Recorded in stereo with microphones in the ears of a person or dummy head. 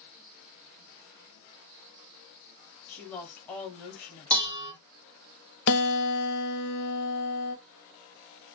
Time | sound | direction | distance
2.9 | a woman speaking | 10° left (ahead or behind) | 0.8 m
4.3 | dishes clattering | 25° right (ahead or behind) | 1.4 m
5.7 | a guitar | 60° left (ahead or behind) | 0.7 m